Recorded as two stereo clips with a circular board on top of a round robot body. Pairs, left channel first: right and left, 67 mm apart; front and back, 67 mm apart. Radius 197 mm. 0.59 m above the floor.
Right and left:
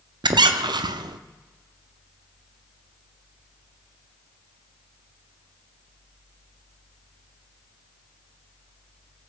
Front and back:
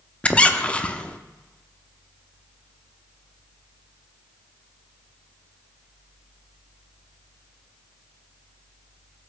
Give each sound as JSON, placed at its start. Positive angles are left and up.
{"t": 0.2, "sound": "a squeak", "azimuth_deg": 75, "distance_m": 0.6}